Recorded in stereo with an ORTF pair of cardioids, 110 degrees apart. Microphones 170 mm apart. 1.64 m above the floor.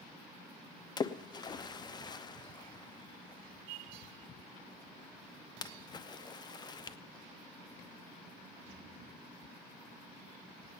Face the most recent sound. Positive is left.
turn(degrees=25)